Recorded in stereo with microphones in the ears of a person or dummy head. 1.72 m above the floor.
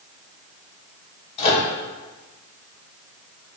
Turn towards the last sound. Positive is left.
turn(degrees=45)  # may be behind; listen again after turning